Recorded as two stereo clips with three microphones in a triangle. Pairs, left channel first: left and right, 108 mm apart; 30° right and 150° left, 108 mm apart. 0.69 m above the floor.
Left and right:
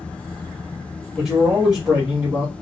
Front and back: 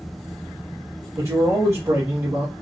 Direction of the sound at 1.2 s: 170° right.